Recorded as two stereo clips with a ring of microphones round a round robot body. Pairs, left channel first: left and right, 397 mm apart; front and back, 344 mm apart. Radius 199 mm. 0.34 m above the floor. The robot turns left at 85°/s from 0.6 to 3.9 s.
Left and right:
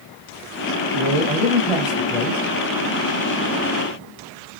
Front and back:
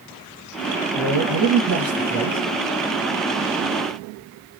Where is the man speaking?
95° right, 1.4 m; by 2.4 s 135° left, 1.4 m.